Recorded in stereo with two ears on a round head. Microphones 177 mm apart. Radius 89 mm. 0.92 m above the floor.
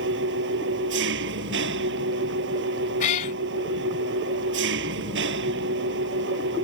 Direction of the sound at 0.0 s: 60° right (ahead or behind).